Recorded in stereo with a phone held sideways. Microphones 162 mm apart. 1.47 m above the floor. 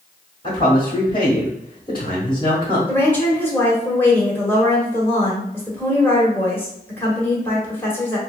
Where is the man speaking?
35° left (ahead or behind), 1.6 m.